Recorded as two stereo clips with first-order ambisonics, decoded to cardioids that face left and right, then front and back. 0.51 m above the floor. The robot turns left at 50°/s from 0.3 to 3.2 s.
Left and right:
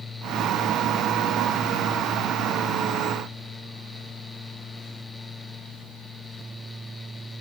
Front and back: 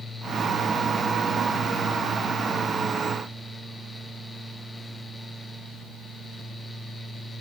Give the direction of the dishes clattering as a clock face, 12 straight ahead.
I don't hear dishes clattering.